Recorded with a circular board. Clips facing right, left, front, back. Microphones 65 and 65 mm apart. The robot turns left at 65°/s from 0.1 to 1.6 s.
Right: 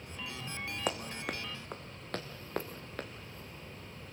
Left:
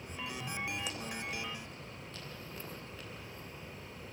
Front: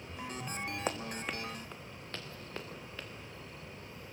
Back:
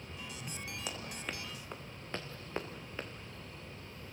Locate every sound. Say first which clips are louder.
0.9 s running footsteps: right 4 dB, front 5 dB; 50° right, 1.7 m; by 3.1 s 115° right, 3 m